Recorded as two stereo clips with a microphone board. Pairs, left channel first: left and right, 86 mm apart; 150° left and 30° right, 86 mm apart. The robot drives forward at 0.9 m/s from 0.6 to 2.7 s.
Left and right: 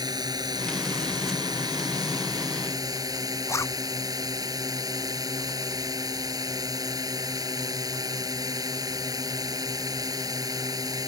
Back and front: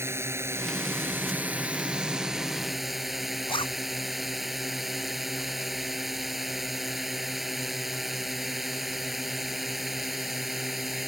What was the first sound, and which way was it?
A drone, 80° right.